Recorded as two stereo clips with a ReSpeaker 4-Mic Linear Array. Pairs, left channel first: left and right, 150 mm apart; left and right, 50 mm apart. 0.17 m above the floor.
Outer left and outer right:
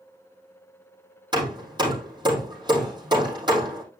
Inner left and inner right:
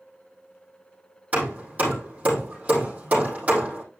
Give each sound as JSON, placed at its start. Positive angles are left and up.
{"t": 1.3, "sound": "hammering", "side_deg": -30, "distance_m": 4.5}